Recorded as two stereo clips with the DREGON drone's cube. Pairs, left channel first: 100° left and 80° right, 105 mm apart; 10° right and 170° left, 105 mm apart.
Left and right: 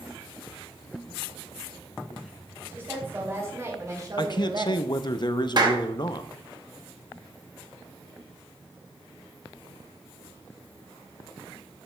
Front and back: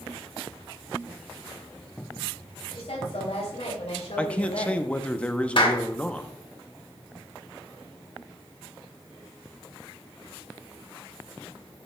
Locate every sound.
2.7 s a woman speaking: 10° right, 3.5 m; by 4.9 s 50° right, 0.9 m
4.2 s a man speaking: 65° left, 0.6 m
5.6 s a clap: 40° right, 1.3 m